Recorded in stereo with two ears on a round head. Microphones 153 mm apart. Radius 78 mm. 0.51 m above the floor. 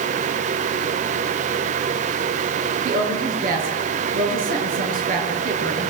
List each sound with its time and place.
2.9 s a woman speaking: 55° right (ahead or behind), 8 m